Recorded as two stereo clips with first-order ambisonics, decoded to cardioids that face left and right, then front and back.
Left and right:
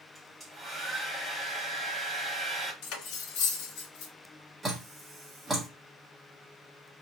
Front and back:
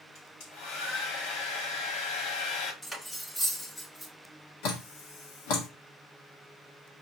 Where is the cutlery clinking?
85° left, 0.9 m.